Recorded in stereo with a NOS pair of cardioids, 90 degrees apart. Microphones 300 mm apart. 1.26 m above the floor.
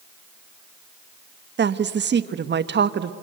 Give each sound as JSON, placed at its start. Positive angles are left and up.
{"t": 1.6, "sound": "a woman speaking", "azimuth_deg": -40, "distance_m": 1.3}